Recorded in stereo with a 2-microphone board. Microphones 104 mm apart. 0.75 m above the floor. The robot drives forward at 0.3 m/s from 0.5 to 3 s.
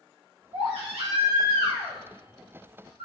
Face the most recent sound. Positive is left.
turn(degrees=-55)  # may be behind; listen again after turning